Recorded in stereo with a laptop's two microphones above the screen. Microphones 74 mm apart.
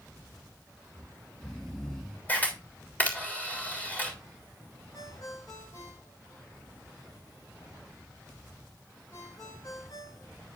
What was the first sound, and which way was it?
Snoring, 10° left (ahead or behind).